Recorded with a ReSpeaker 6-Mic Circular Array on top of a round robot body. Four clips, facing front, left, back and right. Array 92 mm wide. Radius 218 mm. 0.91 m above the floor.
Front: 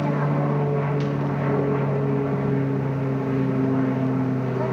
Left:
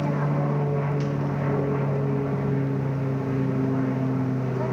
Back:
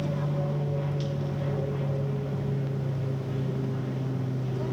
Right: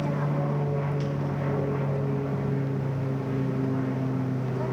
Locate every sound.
0.0 s an aircraft: 20° left